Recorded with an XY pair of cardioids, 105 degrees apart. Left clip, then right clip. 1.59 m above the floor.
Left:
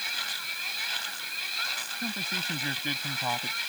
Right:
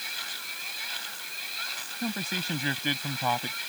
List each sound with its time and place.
0.0 s a machine running: 30° left
2.0 s a man speaking: 20° right